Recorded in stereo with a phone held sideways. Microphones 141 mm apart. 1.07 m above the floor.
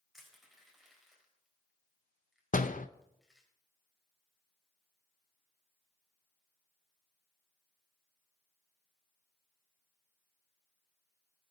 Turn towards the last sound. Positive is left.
turn(degrees=70)  # may be behind; listen again after turning